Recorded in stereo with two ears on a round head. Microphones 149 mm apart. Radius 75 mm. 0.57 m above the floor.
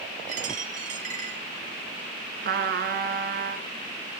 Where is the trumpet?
55° right (ahead or behind), 2 m.